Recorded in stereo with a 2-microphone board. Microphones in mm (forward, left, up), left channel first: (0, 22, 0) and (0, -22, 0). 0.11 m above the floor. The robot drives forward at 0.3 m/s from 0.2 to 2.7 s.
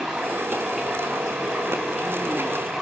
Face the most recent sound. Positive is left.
turn(degrees=-10)  # may be behind; listen again after turning